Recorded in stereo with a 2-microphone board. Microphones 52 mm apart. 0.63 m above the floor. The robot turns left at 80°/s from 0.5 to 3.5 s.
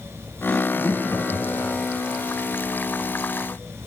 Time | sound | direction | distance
0.5 | laughter | 30° left (ahead or behind) | 4 m